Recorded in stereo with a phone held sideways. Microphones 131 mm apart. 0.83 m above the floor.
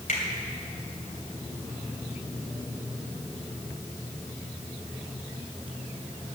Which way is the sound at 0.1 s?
85° left.